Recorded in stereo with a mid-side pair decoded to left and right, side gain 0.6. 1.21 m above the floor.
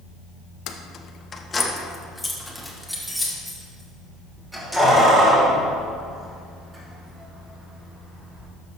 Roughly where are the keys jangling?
Ahead left.